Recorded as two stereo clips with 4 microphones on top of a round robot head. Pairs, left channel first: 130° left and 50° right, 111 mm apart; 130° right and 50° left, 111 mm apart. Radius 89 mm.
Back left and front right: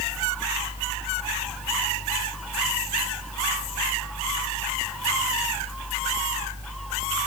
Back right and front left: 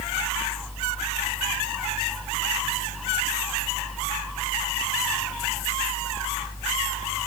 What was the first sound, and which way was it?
Only background noise.